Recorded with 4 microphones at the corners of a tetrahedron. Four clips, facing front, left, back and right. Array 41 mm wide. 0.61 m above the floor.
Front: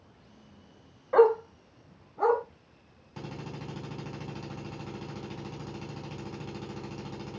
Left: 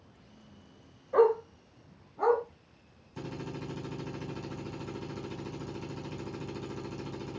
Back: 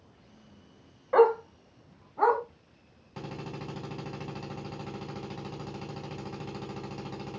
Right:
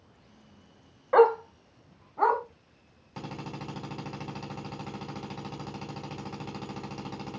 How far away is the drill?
About 3.5 m.